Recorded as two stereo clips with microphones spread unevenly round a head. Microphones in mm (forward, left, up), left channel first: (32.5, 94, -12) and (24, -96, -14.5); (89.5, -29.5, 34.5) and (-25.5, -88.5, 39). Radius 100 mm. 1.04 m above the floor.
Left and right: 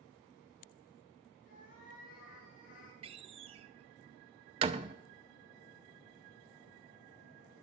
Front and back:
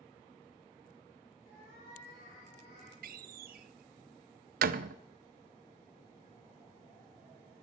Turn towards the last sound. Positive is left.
turn(degrees=-155)